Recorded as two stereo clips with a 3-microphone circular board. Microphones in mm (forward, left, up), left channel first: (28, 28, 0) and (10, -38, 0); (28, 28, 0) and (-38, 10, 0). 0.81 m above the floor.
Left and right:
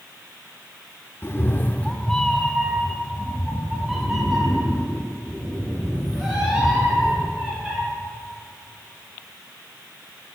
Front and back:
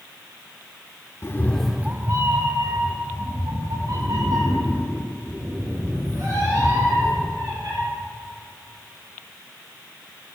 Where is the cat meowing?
35° left, 0.5 m; by 7.8 s 175° left, 5 m.